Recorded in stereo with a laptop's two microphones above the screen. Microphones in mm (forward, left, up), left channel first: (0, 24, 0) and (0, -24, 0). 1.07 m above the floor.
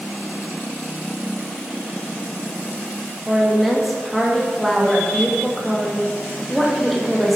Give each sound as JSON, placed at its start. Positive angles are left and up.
{"t": 3.3, "sound": "a woman speaking", "side_deg": 0, "distance_m": 2.0}